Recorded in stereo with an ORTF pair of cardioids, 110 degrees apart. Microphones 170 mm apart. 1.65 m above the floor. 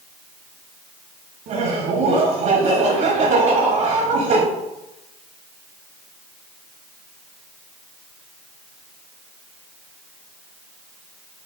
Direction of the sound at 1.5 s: 55° right.